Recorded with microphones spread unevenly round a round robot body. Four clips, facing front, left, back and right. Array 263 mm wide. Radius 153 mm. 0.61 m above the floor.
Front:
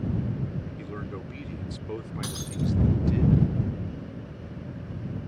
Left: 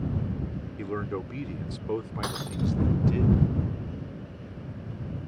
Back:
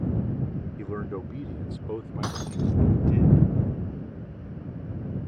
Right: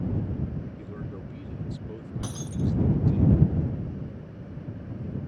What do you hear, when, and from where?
0.8 s a man speaking: 100° left; by 3.2 s 70° left
2.2 s breaking glass: 115° left